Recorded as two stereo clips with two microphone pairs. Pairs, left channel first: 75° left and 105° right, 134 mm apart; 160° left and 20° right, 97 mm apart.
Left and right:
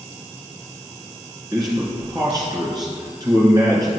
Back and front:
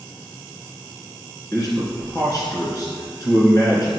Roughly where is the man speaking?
Behind right.